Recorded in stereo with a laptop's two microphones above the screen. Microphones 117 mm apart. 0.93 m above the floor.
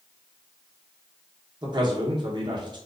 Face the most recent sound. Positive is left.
turn(degrees=-40)  # may be behind; listen again after turning